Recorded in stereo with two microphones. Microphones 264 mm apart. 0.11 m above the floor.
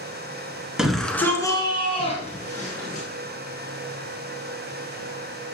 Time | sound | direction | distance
0.8 | a shout | centre (ahead or behind) | 1.3 m